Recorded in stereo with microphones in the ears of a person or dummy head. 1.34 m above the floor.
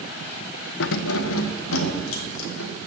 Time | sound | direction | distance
0.8 | keys jangling | 65° left (ahead or behind) | 0.6 m